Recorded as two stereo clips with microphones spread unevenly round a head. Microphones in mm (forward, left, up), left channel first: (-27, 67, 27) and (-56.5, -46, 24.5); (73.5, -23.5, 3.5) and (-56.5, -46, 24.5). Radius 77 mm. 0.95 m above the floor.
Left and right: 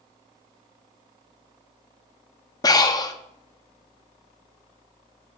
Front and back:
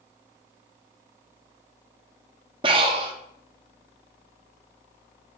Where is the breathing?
130° left, 0.8 m.